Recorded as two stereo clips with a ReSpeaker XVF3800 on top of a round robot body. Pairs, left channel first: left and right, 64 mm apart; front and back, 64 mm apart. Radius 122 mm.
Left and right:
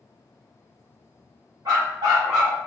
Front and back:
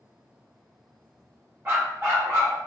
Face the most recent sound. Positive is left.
turn(degrees=-130)